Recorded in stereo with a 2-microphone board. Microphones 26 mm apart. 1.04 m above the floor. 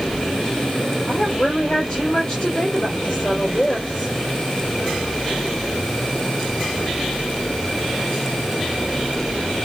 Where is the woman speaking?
40° left (ahead or behind), 3.5 m.